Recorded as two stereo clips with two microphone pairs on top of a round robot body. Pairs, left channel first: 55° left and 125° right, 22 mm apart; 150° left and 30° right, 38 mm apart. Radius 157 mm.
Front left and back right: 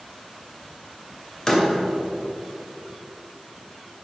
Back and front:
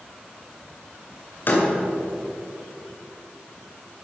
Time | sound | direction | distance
1.5 | a door slam | 120° left | 2.5 m